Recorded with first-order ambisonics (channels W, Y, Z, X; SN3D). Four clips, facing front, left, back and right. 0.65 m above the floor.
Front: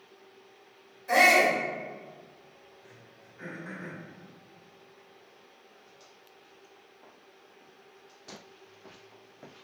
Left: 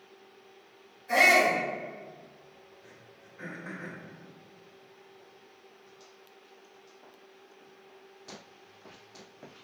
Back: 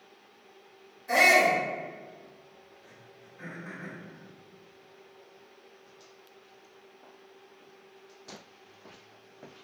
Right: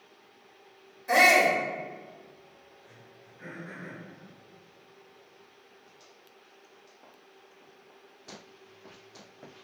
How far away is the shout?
About 1.5 m.